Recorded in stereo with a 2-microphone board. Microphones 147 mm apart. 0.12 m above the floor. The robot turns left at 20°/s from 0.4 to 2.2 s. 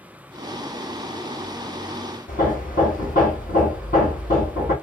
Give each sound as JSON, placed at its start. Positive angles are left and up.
{"t": 2.3, "sound": "hammering", "side_deg": 70, "distance_m": 2.0}